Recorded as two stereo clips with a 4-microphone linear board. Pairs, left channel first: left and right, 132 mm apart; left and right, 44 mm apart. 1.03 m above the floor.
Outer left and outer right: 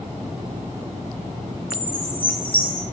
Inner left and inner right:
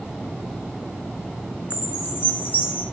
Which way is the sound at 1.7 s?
45° left (ahead or behind).